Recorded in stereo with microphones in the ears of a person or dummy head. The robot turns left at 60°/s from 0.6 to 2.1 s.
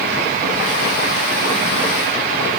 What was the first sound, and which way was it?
Only background noise.